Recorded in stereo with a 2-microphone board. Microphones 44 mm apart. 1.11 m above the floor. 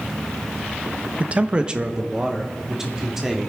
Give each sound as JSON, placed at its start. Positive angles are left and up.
{"t": 1.2, "sound": "a man speaking", "side_deg": -30, "distance_m": 0.6}